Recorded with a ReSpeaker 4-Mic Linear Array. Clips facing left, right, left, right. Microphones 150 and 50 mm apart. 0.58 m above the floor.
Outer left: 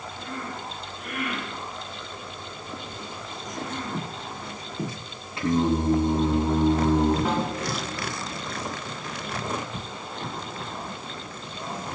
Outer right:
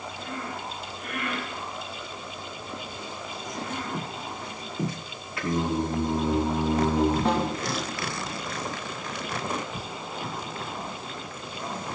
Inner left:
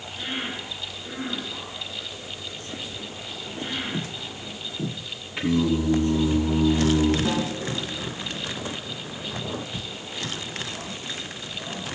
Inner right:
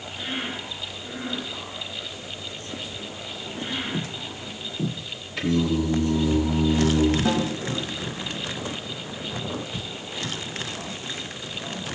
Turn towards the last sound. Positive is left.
turn(degrees=5)  # may be behind; listen again after turning